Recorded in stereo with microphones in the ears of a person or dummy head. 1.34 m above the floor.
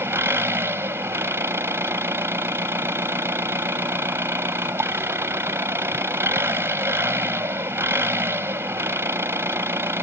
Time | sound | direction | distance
0.0 | an engine running | 15° right (ahead or behind) | ?